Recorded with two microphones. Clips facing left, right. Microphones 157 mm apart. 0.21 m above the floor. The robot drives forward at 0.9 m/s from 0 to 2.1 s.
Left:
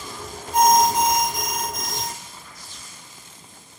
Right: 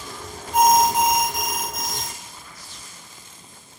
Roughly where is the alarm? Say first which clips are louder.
Even; centre.